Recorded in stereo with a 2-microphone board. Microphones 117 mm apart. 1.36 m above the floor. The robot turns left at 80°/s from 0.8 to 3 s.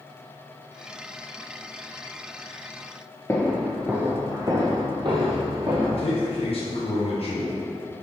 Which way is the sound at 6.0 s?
55° left (ahead or behind).